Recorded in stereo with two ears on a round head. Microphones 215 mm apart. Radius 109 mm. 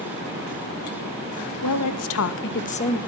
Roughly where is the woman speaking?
Left.